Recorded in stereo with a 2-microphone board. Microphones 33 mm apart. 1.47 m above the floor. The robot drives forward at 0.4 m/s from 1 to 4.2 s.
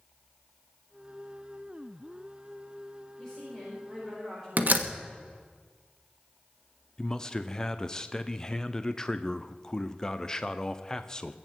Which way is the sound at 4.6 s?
55° right (ahead or behind).